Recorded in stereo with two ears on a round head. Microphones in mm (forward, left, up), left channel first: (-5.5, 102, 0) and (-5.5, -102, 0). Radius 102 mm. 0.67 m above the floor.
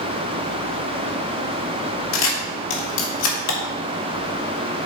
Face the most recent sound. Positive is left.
turn(degrees=60)  # may be behind; listen again after turning